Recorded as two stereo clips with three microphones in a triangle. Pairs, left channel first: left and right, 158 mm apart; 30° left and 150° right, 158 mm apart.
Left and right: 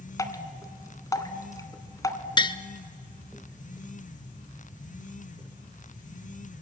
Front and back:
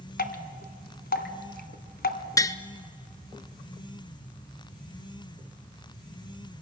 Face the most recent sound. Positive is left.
turn(degrees=75)